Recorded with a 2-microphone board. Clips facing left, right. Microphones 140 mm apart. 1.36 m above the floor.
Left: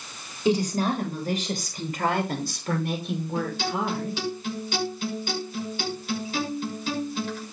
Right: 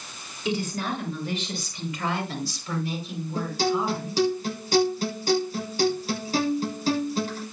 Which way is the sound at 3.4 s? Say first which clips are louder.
Right 5 dB; 40° right (ahead or behind).